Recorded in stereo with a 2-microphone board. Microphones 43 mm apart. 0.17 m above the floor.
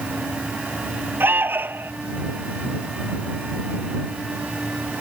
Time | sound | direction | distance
1.2 | an alarm | 60° right (ahead or behind) | ?